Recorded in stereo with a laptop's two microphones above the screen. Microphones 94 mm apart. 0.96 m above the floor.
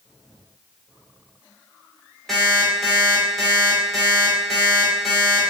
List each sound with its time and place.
2.3 s an alarm clock: 5° left (ahead or behind), 0.9 m